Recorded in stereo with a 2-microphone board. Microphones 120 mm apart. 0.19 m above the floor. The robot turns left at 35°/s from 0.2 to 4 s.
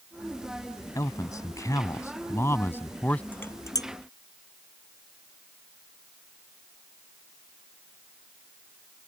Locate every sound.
0.9 s a man speaking: 30° left (ahead or behind); by 3.2 s 10° left (ahead or behind)
3.3 s dishes clattering: 15° left (ahead or behind); by 3.9 s 35° left (ahead or behind)